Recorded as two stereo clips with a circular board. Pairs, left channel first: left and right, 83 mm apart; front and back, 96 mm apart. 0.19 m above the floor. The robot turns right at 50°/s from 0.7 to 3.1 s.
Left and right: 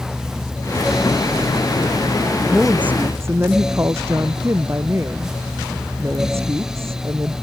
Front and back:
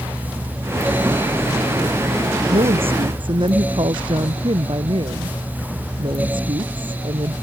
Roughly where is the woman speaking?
Behind.